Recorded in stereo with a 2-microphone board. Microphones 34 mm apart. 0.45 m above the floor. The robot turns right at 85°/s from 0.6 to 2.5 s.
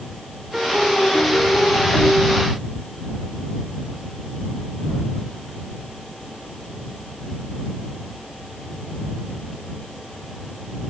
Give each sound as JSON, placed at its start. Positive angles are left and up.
{"t": 0.5, "sound": "a piano", "azimuth_deg": 0}